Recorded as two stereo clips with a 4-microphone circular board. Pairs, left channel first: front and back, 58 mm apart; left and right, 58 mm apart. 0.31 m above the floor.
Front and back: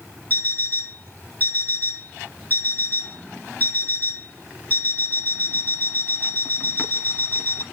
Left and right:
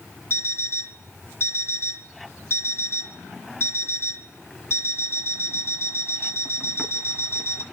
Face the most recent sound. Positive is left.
turn(degrees=55)